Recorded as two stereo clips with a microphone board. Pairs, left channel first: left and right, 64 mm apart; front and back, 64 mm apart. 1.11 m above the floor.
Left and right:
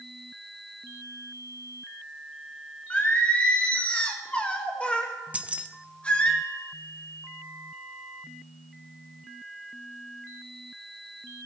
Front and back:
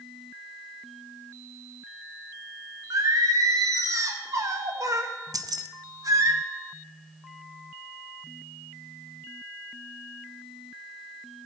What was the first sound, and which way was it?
Singing, 160° left.